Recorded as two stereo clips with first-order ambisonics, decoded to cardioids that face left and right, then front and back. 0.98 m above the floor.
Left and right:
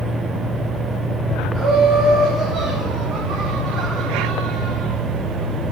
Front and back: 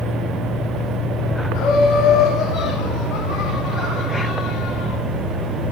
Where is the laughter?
5° right, 6 m.